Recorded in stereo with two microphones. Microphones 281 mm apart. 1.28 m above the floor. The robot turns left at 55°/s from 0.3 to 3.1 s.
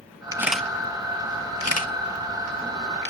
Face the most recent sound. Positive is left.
turn(degrees=40)  # may be behind; listen again after turning